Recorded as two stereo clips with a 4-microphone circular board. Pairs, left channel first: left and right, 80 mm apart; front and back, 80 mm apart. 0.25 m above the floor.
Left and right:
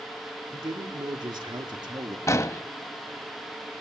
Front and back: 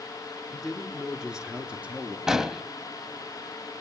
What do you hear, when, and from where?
0.5 s a man speaking: 95° right, 3.5 m; by 2.2 s 110° right, 3 m
2.3 s an explosion: 100° left, 0.8 m